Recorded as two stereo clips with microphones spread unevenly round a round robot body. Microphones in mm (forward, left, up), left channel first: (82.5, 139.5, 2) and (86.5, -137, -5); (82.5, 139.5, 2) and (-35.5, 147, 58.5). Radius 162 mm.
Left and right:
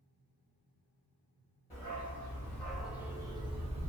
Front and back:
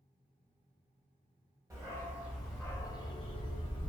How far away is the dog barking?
About 0.9 m.